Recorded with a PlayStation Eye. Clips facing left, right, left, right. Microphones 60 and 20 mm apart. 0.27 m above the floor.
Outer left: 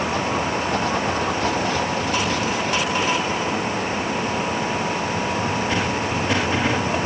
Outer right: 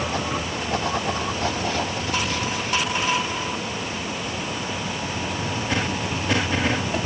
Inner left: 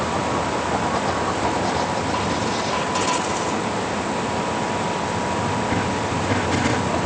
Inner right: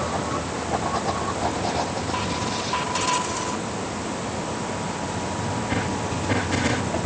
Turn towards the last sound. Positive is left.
No sound to turn to.